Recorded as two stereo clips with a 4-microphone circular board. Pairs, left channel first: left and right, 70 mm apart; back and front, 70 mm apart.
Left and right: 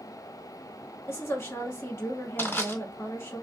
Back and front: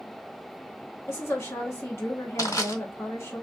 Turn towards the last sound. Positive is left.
turn(degrees=150)